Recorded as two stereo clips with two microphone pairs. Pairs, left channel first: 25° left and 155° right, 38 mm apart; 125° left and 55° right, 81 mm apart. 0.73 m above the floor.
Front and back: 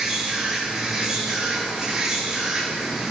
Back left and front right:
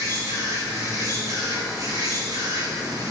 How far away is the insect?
About 5.5 m.